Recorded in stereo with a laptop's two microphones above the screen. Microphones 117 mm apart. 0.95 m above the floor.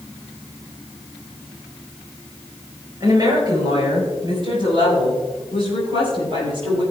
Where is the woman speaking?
35° right (ahead or behind), 4 m; by 6.8 s 50° right (ahead or behind), 9 m.